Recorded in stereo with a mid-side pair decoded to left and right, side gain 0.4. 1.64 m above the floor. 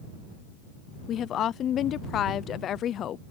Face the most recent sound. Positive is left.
turn(degrees=70)